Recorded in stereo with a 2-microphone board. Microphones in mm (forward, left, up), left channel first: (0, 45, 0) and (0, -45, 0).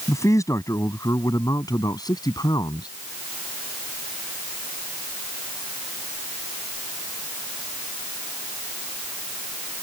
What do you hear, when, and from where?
0.1 s a man speaking: 35° left (ahead or behind); by 2.9 s 50° left (ahead or behind)